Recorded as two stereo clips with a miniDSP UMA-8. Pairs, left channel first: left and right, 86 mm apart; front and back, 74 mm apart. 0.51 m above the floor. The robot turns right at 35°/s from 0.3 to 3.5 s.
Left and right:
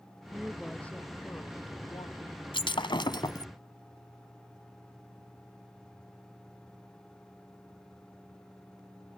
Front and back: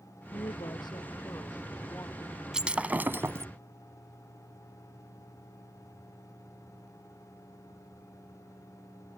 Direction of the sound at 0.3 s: 5° right.